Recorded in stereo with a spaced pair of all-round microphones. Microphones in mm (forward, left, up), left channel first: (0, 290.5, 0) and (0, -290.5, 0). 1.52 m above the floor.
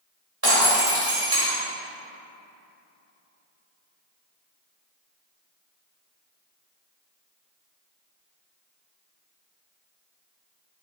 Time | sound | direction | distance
0.4 | breaking glass | 25° right (ahead or behind) | 3 m